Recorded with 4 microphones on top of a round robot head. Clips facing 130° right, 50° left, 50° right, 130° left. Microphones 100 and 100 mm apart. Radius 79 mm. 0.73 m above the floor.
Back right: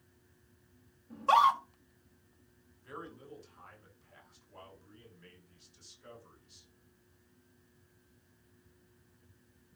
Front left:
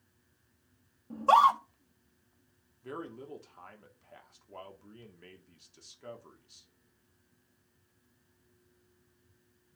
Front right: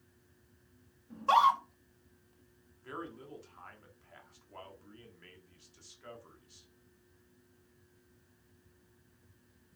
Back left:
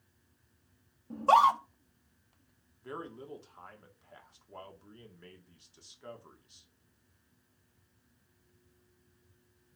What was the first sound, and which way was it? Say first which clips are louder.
A scream: front left 3 dB, back left 3 dB; 90° left.